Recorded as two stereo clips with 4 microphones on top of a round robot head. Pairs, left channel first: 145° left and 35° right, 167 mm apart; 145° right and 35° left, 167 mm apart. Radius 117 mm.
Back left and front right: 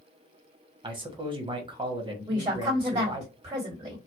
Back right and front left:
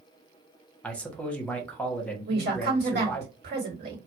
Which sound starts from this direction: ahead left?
A woman speaking, at 2.3 s.